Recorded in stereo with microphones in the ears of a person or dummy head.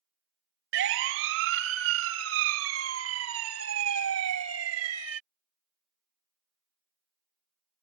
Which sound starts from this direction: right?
A siren, at 0.7 s.